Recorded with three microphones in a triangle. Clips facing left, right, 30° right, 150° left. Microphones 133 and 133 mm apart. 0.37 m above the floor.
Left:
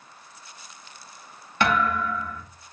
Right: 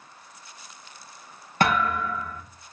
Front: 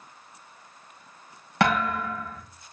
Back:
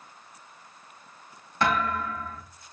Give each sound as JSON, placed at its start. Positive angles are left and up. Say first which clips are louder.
{"t": 1.6, "sound": "a thud", "louder": "even, front 2 dB", "azimuth_deg": -45, "distance_m": 5.5}